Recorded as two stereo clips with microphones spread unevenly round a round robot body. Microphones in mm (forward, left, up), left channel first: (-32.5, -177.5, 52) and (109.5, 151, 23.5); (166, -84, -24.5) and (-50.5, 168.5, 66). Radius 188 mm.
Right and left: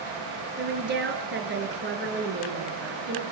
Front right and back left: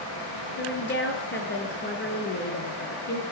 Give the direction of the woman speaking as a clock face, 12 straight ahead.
12 o'clock.